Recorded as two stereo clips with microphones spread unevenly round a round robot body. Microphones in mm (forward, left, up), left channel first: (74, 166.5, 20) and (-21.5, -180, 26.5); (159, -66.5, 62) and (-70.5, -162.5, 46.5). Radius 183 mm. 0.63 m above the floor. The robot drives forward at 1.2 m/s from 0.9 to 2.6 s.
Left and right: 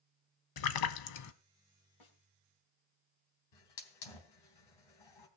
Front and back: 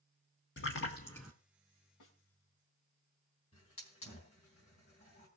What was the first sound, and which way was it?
A splash, 70° left.